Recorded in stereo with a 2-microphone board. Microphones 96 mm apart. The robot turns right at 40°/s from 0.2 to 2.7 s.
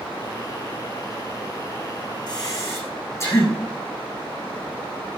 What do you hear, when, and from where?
2.3 s breathing: 45° left (ahead or behind), 8 m; by 3.5 s 30° left (ahead or behind), 8 m